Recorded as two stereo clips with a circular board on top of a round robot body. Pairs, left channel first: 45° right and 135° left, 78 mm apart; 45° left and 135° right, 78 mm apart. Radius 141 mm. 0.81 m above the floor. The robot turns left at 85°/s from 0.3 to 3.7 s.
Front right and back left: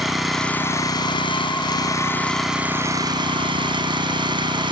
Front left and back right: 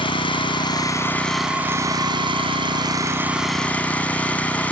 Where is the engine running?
50° left; by 4.7 s 120° left.